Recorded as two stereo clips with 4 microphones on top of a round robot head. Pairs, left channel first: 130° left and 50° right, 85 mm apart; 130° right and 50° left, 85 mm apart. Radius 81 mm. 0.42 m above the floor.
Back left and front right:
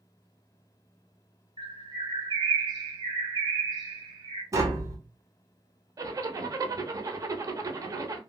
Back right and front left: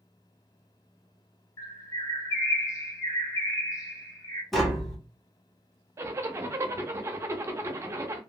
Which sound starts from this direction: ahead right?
Tapping, at 4.5 s.